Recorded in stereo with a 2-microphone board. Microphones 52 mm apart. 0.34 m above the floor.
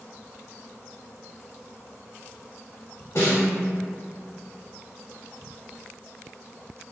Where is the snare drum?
60° left (ahead or behind), 1.3 m.